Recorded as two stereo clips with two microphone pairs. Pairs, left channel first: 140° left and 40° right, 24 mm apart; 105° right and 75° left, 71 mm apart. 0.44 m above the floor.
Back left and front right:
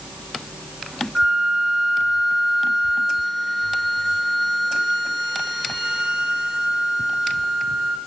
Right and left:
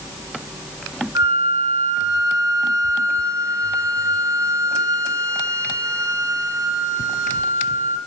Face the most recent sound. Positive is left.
turn(degrees=35)